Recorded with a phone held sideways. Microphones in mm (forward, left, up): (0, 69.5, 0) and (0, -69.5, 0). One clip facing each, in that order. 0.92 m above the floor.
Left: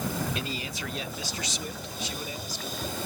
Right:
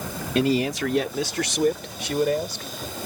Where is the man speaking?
70° right (ahead or behind); by 2.7 s 75° right (ahead or behind).